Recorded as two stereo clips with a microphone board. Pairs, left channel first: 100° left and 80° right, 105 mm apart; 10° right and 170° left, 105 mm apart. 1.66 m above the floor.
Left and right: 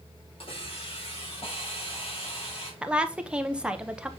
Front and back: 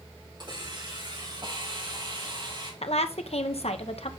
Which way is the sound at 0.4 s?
125° left.